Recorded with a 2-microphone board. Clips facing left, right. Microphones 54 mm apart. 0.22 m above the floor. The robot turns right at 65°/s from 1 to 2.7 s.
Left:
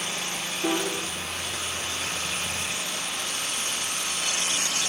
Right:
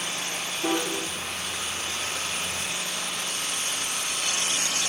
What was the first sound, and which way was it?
A piano, 5° right (ahead or behind).